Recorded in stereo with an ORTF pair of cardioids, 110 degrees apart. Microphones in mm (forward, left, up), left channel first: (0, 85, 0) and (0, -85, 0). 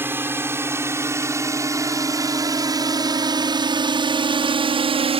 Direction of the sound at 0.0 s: 15° right.